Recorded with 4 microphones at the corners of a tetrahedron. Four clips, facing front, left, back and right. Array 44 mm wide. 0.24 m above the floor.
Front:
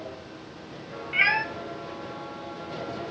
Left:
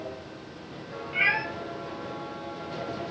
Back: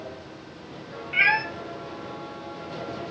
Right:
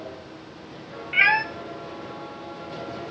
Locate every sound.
1.1 s a cat meowing: 95° right, 0.5 m